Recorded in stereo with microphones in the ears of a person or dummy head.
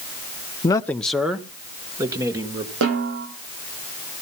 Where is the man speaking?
20° left (ahead or behind), 0.5 m; by 2.7 s 20° right (ahead or behind), 1.5 m.